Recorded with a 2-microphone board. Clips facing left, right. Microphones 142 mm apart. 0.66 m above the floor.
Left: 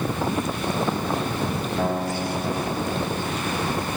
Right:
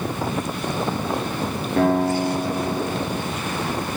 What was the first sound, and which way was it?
A guitar, 60° right (ahead or behind).